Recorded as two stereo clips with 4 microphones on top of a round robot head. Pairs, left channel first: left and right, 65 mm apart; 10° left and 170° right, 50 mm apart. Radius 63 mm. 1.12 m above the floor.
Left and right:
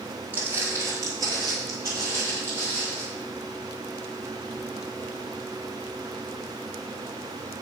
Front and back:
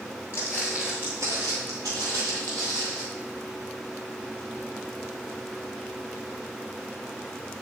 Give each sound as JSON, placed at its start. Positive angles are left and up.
{"t": 0.3, "sound": "footsteps", "azimuth_deg": -45, "distance_m": 1.2}